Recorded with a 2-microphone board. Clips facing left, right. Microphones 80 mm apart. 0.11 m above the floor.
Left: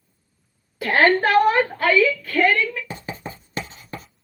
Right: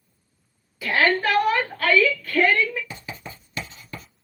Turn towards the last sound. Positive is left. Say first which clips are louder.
# left 5 dB
turn(degrees=40)  # may be behind; listen again after turning